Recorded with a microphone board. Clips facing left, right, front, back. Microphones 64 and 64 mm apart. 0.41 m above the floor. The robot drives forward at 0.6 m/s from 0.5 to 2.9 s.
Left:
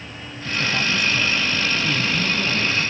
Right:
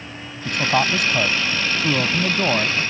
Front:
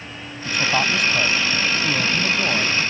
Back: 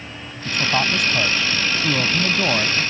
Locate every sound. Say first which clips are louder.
0.5 s a man speaking: right 4 dB, even; 90° right; by 2.8 s 115° right